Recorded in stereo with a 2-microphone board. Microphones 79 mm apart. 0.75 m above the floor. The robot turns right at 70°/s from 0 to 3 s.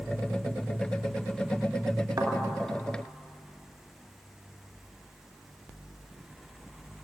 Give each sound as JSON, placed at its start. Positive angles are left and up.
{"t": 2.2, "sound": "a thud", "side_deg": -60, "distance_m": 2.5}